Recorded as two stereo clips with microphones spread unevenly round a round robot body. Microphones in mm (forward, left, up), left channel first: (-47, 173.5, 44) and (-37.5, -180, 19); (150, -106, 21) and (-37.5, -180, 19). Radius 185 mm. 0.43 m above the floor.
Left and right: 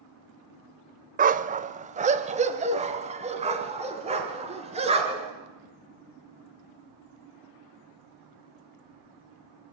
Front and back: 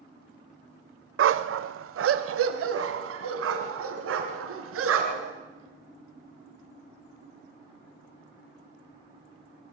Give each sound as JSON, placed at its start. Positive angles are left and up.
{"t": 1.2, "sound": "a dog barking", "azimuth_deg": -155, "distance_m": 0.7}